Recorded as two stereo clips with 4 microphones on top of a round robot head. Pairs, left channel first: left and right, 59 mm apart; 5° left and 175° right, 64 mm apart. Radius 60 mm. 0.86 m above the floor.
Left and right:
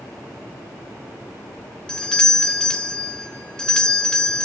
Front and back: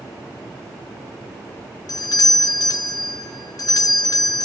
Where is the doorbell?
15° left, 2 m.